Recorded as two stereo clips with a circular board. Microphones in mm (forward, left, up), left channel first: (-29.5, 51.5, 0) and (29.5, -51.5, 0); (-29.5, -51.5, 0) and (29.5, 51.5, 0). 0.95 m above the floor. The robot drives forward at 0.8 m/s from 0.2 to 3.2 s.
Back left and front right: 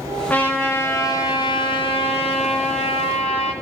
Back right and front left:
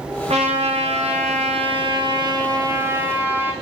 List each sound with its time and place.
0.3 s a trumpet: 45° left, 1.8 m; by 3.5 s 130° left, 1.7 m